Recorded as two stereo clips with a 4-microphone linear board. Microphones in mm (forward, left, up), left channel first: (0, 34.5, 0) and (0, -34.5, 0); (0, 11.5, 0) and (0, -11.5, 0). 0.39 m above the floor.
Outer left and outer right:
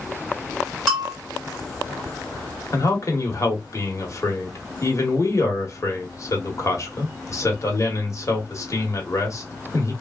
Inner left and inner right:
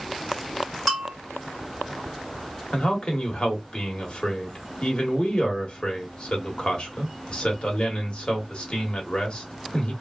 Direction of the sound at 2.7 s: 45° left (ahead or behind).